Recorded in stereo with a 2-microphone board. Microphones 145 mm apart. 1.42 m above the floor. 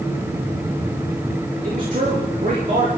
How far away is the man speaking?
About 4.5 m.